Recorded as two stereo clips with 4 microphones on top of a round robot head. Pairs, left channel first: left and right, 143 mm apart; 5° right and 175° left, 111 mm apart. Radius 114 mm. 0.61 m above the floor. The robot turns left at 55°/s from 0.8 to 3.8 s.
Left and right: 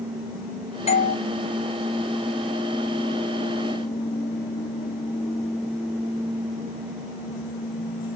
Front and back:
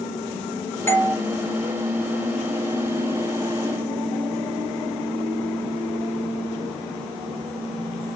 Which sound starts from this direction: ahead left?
A doorbell, at 0.9 s.